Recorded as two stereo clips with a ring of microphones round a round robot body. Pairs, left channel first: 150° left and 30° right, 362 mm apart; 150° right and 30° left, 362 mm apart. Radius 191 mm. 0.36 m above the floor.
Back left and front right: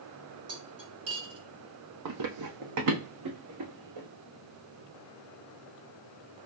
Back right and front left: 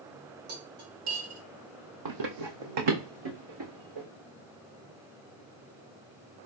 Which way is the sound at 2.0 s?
5° left.